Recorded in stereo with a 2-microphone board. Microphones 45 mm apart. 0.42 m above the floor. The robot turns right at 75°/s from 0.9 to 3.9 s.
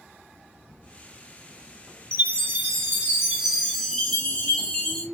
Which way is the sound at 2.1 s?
120° right.